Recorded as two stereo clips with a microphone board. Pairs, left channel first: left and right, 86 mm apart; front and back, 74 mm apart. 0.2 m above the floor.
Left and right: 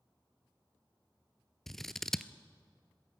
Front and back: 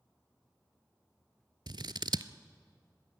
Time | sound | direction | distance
1.7 | scissors | 175° left | 0.6 m